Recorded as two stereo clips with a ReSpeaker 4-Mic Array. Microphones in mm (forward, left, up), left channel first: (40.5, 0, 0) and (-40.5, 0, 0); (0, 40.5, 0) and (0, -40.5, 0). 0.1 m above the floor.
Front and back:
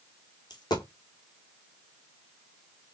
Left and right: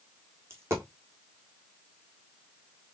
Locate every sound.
0.5 s a dropped coin: 30° right, 1.3 m